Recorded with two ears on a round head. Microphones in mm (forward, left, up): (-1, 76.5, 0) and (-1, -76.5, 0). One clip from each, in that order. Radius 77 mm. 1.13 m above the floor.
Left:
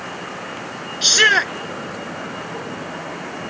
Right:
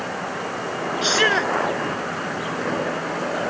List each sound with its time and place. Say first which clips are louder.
1.0 s a shout: left 5 dB; 40° left (ahead or behind)